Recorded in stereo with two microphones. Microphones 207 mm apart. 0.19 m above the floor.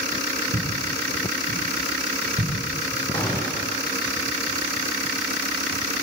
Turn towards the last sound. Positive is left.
turn(degrees=25)  # may be behind; listen again after turning